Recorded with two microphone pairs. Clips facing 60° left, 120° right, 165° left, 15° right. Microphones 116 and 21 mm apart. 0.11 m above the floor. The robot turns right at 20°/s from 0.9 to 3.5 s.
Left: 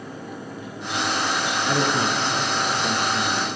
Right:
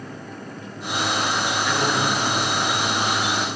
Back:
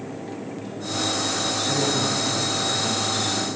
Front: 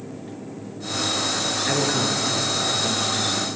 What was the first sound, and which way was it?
A man speaking, 25° left.